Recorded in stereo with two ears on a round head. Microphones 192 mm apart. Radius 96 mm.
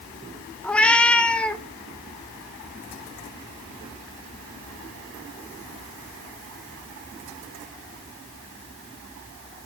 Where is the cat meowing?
5° left (ahead or behind), 0.7 m.